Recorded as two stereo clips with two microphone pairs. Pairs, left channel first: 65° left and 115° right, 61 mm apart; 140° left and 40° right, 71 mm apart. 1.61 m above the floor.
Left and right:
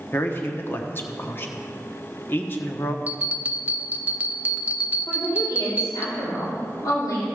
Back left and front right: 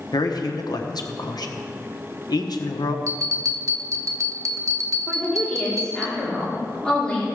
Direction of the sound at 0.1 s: 120° left.